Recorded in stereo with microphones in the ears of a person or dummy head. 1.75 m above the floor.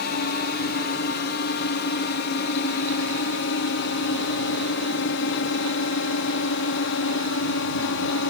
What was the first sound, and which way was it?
A drone, 55° left (ahead or behind).